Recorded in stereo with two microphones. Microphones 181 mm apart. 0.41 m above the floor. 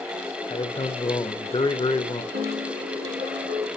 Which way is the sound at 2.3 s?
70° right (ahead or behind).